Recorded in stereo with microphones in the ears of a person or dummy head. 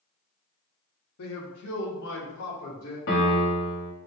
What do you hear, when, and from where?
1.2 s a man speaking: 75° left (ahead or behind), 0.8 m; by 3.0 s 65° left (ahead or behind), 1.4 m
3.1 s a piano: 60° left (ahead or behind), 1.2 m